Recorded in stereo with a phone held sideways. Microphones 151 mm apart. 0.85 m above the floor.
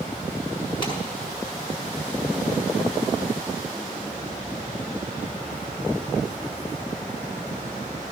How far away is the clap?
About 5.5 m.